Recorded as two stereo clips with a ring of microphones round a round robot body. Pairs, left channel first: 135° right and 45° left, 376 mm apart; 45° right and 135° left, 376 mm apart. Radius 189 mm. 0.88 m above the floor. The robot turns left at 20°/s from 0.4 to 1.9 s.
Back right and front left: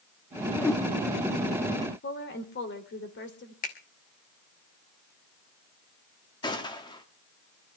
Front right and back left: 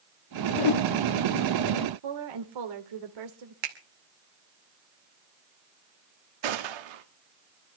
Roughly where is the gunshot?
Behind left.